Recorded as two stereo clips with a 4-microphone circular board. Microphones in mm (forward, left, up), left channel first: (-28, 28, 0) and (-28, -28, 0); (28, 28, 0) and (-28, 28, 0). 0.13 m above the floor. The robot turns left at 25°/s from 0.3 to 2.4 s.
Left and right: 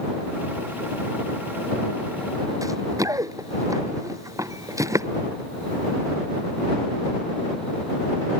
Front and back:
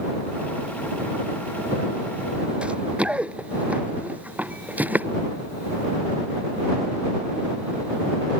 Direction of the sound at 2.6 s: 110° right.